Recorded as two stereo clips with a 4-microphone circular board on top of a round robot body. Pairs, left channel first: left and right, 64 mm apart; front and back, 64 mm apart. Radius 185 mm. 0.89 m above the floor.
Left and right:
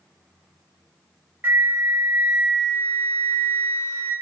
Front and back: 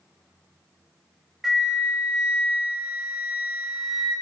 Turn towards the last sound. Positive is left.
turn(degrees=-105)